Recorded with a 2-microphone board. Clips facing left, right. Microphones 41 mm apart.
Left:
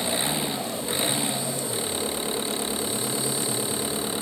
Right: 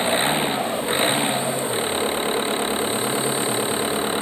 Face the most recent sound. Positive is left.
turn(degrees=-35)  # may be behind; listen again after turning